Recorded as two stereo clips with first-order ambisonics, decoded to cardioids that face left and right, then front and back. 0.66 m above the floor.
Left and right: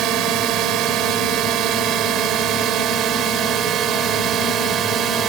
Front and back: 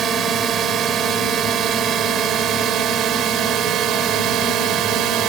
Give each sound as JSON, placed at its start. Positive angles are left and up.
{"t": 0.0, "sound": "a drone", "azimuth_deg": -125}